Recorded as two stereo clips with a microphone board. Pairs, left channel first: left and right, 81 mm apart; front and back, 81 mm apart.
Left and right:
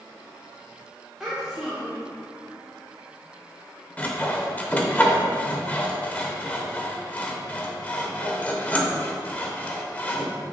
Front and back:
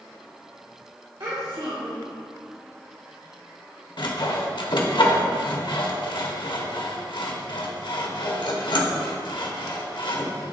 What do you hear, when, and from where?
1.2 s a child speaking: 170° right, 1.3 m
4.0 s sawing: 20° left, 0.9 m